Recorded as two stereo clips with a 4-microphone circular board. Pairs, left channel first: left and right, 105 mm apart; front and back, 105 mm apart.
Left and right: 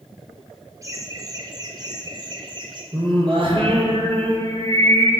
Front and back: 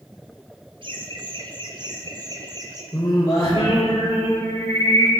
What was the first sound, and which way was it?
Laughter, 145° right.